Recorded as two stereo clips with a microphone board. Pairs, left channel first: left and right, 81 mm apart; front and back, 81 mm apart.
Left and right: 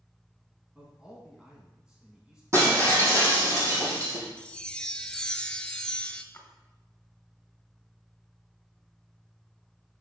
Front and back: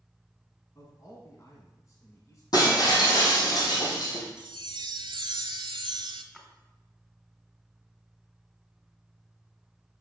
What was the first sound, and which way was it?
A man speaking, 15° right.